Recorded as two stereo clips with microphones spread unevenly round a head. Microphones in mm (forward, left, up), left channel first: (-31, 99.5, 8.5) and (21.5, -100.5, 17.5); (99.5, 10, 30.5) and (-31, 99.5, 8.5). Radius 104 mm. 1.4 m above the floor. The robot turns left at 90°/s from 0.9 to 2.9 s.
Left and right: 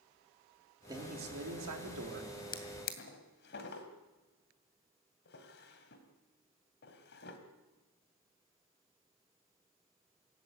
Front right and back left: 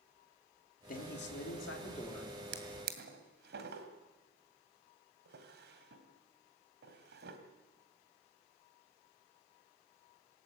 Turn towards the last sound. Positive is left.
turn(degrees=140)